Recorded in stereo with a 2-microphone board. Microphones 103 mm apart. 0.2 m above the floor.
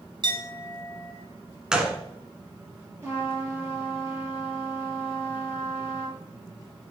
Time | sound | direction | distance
0.2 | a clink | 50° right (ahead or behind) | 1.6 m
1.7 | a gunshot | 5° right (ahead or behind) | 1.2 m
3.0 | a trumpet | 25° right (ahead or behind) | 4.5 m